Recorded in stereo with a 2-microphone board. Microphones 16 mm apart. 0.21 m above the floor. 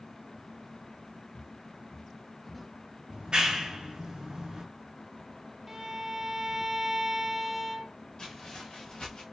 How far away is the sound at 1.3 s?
About 1.0 m.